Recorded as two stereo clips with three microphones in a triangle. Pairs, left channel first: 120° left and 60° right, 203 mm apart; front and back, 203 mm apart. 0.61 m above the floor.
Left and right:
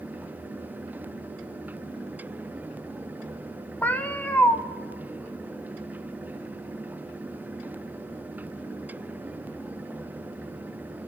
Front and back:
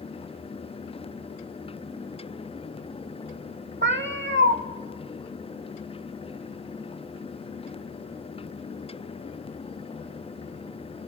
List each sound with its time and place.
3.8 s a cat meowing: 160° right, 0.8 m